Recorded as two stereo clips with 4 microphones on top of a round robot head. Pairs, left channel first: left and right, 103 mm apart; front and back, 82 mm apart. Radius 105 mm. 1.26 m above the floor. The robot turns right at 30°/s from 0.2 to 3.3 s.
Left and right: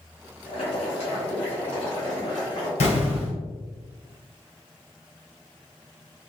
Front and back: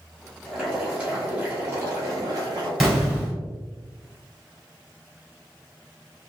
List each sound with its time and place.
0.5 s boiling: 90° left, 1.1 m; by 2.7 s 160° left, 1.1 m
2.8 s an explosion: 95° left, 1.8 m; by 3.4 s 110° left, 1.8 m